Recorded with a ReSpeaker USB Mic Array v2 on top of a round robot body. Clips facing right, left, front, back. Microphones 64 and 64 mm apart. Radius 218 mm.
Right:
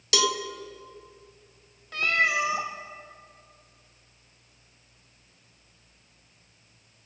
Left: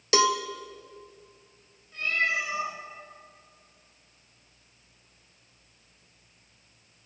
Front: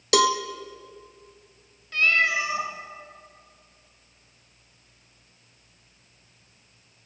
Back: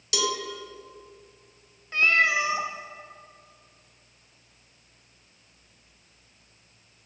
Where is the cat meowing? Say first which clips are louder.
Right 3 dB, even; 110° right, 1.0 m.